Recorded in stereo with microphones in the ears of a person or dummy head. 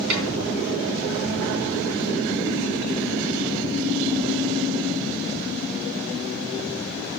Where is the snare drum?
60° right (ahead or behind), 3 m.